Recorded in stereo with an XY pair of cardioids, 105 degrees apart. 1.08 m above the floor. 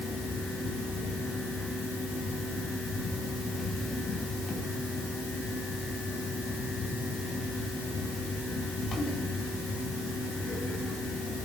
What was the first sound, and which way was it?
A fan, 40° left.